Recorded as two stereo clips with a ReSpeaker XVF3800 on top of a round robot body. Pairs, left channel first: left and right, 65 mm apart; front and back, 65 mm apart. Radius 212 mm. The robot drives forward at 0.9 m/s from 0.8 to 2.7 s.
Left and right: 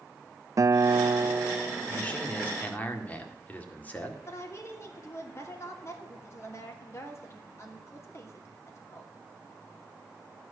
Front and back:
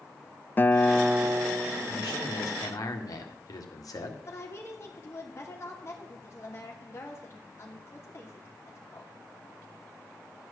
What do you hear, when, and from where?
0.6 s a guitar: 60° right, 0.5 m; by 2.7 s 170° right, 1.6 m
1.9 s a man speaking: 15° left, 2.5 m; by 4.2 s 25° left, 2 m
4.2 s a woman speaking: 45° left, 2.5 m